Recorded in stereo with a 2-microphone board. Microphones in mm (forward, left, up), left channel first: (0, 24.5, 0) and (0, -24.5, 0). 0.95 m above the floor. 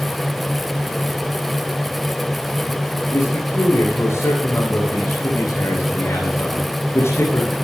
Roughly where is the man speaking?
Left.